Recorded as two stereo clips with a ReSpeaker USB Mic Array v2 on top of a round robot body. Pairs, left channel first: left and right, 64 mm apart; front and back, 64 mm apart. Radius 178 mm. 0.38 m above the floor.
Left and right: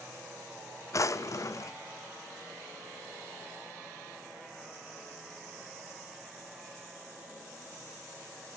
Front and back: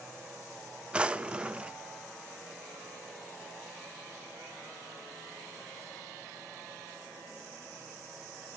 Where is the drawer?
110° left, 0.6 m.